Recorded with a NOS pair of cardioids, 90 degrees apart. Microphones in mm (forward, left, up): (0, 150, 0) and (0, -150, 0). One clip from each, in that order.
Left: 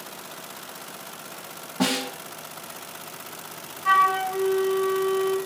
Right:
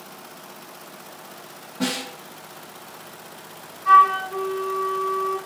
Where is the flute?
40° left, 1.5 m.